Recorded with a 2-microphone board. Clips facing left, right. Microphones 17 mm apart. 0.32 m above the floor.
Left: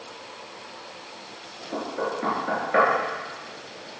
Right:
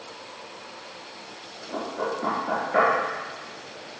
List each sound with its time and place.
1.7 s knocking: 25° left (ahead or behind), 4.5 m